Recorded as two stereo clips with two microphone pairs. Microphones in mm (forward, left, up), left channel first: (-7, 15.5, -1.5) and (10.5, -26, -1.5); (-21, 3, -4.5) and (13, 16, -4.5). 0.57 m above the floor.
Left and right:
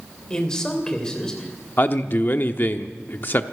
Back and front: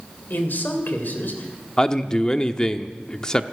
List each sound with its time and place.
0.3 s a man speaking: 170° right, 3 m
1.8 s a man speaking: 135° left, 0.8 m